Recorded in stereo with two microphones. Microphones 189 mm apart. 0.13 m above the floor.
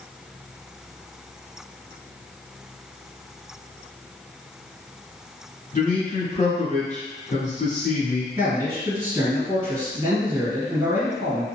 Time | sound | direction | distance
5.7 | a man speaking | 45° left (ahead or behind) | 1.5 m
8.4 | a man speaking | 15° right (ahead or behind) | 1.9 m